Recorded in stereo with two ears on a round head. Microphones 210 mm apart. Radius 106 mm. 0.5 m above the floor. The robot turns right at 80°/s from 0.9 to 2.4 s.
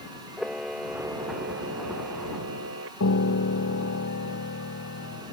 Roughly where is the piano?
Left.